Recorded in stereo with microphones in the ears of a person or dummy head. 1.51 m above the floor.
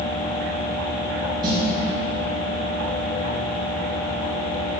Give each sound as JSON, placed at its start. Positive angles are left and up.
{"t": 1.4, "sound": "a snare drum", "side_deg": -25, "distance_m": 2.0}